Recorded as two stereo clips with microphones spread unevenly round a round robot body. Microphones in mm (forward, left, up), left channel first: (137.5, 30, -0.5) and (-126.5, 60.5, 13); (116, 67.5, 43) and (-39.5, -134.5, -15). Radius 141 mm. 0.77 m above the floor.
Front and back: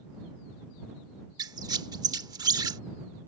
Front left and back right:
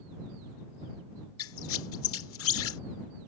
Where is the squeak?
95° left.